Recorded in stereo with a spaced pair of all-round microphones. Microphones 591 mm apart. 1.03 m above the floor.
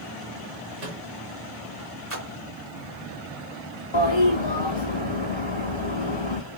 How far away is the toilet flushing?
About 1.1 m.